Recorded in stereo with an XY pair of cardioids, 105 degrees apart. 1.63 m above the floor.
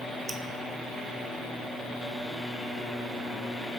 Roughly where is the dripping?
Ahead right.